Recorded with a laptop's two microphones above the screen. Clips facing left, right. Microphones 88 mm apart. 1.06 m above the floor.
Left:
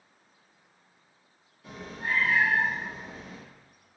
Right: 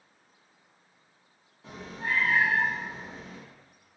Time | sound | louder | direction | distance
1.6 | a cat meowing | even | 30° right (ahead or behind) | 1.0 m